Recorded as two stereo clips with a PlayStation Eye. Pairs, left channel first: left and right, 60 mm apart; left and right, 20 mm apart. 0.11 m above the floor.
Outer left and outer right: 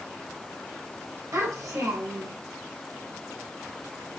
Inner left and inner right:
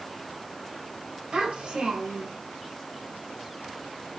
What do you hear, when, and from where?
1.3 s a child speaking: 60° right (ahead or behind), 2 m